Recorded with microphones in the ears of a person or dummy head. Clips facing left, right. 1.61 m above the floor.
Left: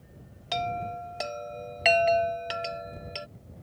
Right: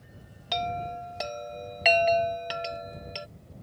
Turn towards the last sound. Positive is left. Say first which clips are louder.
# even
turn(degrees=0)  # may be behind; listen again after turning